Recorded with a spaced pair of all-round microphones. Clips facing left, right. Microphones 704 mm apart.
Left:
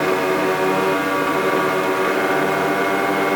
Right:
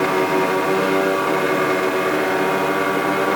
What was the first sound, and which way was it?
Only background noise.